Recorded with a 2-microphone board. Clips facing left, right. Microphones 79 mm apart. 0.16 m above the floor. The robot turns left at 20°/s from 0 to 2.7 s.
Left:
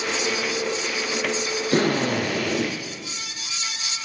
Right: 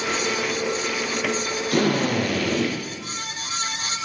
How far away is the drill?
About 1.4 m.